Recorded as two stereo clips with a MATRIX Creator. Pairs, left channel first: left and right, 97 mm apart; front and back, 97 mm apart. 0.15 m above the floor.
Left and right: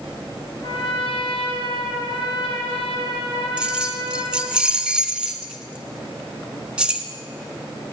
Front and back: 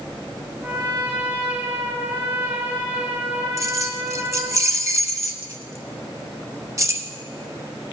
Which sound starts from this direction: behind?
Keys jangling, at 3.6 s.